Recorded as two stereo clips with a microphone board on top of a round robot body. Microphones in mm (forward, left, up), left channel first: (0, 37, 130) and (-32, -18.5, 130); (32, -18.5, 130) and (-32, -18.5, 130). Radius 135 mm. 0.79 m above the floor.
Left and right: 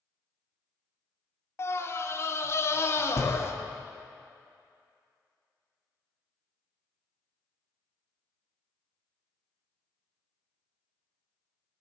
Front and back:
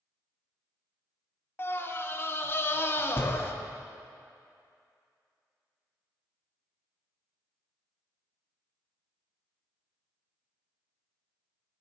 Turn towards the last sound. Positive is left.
turn(degrees=35)